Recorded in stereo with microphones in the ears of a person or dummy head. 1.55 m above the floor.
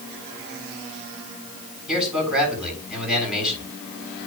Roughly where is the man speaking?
Centre.